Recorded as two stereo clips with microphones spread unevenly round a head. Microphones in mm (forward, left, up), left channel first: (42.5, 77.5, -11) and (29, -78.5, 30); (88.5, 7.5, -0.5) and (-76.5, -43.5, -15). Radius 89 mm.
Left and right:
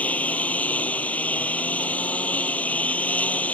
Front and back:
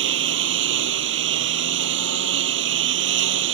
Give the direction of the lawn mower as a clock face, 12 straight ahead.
6 o'clock.